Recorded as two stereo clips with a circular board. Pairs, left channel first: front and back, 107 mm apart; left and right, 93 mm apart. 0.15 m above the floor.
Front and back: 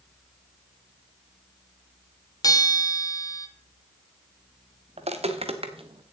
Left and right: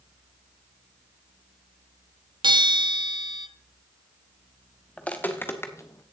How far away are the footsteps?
About 1.4 m.